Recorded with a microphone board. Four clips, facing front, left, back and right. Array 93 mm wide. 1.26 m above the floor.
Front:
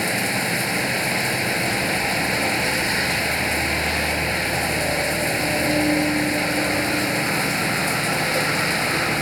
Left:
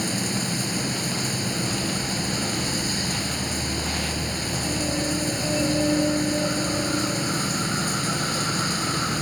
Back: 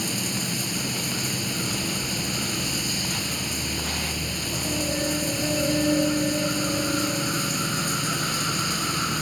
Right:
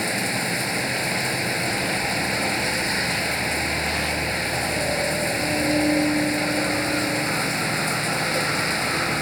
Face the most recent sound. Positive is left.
turn(degrees=-30)